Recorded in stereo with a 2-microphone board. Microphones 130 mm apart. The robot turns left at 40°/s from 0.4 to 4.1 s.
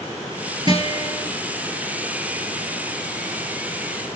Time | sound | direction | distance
0.7 | a guitar | 40° right (ahead or behind) | 4.5 m